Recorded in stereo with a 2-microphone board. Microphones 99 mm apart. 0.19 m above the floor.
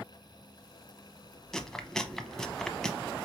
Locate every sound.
1.5 s chewing: 5° left (ahead or behind), 0.7 m